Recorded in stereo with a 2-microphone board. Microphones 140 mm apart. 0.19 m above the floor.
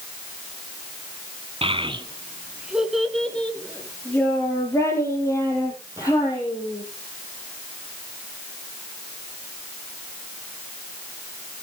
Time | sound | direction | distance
1.6 | a child speaking | 45° right (ahead or behind) | 1.3 m